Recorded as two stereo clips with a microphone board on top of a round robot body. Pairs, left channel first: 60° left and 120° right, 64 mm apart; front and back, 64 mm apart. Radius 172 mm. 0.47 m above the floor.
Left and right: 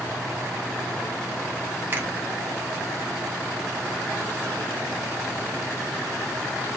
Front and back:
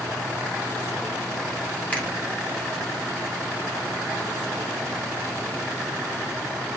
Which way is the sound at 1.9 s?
70° right.